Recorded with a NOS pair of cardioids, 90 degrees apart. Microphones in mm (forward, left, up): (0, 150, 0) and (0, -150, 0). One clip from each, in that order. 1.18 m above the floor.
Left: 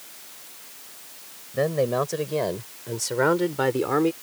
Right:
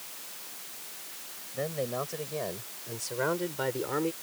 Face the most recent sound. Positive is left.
turn(degrees=60)